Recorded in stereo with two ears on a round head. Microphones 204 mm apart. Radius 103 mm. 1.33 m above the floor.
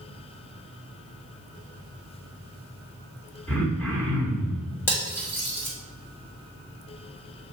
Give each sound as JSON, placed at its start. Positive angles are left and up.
{"t": 3.5, "sound": "throat clearing", "side_deg": 10, "distance_m": 3.0}
{"t": 4.9, "sound": "cutlery clinking", "side_deg": 10, "distance_m": 2.5}